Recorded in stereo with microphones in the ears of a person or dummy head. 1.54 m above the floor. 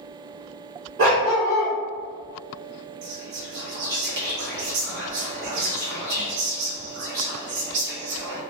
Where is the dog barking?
45° right (ahead or behind), 1.7 m.